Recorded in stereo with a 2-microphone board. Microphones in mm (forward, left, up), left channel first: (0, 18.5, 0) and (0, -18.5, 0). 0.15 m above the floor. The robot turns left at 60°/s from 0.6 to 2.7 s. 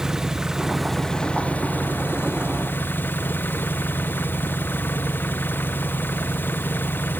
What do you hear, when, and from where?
0.0 s an engine running: 165° right; by 7.2 s 70° left